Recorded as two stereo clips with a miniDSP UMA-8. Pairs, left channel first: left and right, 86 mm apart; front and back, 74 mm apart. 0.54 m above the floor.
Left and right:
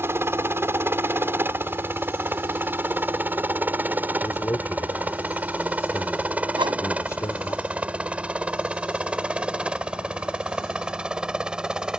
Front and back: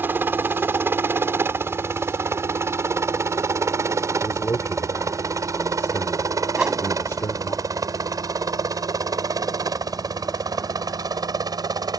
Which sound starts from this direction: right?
A whoosh, at 6.6 s.